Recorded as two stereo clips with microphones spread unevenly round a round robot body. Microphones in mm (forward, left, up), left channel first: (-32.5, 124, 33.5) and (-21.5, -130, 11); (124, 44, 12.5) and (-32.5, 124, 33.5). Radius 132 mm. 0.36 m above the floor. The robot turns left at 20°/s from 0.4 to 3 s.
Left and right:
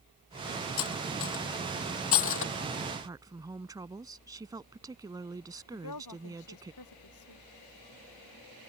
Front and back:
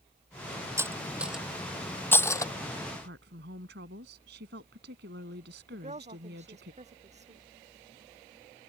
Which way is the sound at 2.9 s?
160° right.